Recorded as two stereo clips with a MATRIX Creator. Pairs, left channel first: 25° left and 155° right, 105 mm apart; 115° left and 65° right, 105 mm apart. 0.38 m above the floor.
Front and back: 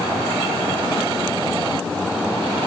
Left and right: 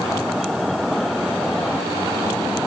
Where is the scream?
No scream in this recording.